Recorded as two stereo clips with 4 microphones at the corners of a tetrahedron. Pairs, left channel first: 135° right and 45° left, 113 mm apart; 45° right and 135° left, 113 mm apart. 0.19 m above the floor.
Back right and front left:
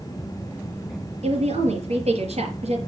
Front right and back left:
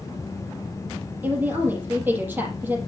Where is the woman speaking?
60° left, 5 m.